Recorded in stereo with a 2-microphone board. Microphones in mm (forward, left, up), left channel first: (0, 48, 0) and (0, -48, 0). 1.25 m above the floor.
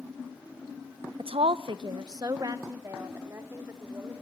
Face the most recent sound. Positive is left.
turn(degrees=-25)  # may be behind; listen again after turning